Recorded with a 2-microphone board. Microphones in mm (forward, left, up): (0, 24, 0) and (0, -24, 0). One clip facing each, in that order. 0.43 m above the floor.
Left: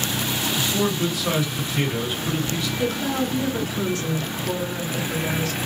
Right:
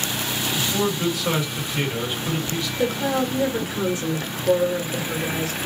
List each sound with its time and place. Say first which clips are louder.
0.6 s a man speaking: even; centre (ahead or behind), 1.7 m
2.8 s a woman speaking: right 3 dB; 20° right (ahead or behind), 0.8 m